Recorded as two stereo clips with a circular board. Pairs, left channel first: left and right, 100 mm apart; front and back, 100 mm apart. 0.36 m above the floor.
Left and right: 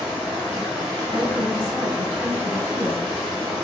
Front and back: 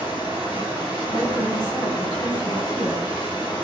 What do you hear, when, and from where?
0.0 s running water: 5° right, 1.2 m
1.1 s a woman speaking: 35° right, 1.9 m